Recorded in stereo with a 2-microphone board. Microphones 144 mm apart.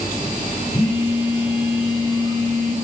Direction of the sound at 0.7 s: 35° left (ahead or behind).